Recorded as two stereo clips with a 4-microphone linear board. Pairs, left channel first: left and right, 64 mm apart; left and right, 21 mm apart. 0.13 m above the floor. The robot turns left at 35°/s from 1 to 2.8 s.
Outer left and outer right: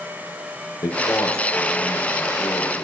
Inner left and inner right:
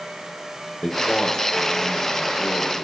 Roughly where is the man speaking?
Left.